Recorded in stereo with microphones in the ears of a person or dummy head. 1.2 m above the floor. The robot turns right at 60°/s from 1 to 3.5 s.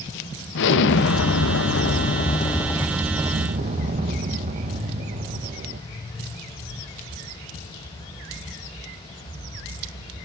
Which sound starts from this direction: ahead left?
An explosion, at 0.6 s.